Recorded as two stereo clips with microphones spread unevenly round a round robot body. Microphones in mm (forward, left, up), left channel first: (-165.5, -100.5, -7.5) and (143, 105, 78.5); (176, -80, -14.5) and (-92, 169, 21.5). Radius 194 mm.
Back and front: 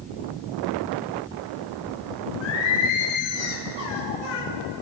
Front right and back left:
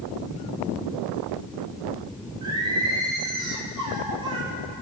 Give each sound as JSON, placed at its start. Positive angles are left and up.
{"t": 2.4, "sound": "singing", "azimuth_deg": -145, "distance_m": 3.0}